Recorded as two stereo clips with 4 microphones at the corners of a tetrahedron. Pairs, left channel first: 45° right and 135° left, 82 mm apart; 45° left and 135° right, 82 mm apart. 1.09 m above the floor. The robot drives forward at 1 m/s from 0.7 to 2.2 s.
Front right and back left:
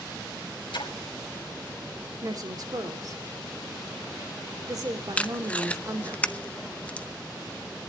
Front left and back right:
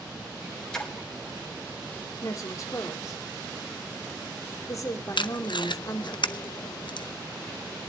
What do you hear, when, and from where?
0.7 s a splash: 35° right, 3 m
2.2 s a woman speaking: 95° left, 2.5 m
5.2 s tape being pulled: 30° left, 0.6 m